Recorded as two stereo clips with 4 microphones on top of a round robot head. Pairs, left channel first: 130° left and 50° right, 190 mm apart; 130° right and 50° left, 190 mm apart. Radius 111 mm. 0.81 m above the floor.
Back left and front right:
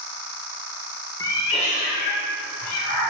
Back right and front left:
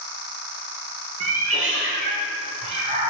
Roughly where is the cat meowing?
Ahead left.